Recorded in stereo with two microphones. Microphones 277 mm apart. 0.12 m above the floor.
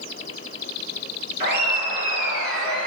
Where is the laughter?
20° right (ahead or behind), 2 m; by 2.9 s 5° left (ahead or behind), 1.8 m.